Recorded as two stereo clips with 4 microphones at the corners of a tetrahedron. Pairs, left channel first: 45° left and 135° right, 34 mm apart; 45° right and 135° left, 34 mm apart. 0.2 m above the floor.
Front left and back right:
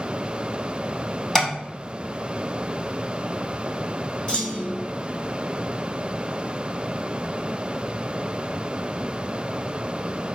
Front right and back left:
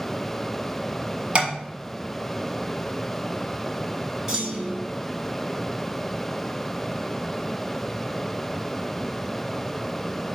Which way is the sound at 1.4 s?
110° left.